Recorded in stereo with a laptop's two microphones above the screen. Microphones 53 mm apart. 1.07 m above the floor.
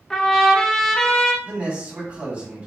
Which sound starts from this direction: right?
A man speaking, at 1.4 s.